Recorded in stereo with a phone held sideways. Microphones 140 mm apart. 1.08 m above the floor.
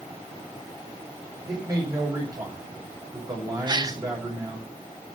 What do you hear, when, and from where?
1.5 s a man speaking: 25° right (ahead or behind), 6 m
3.7 s a gasp: 30° right (ahead or behind), 0.7 m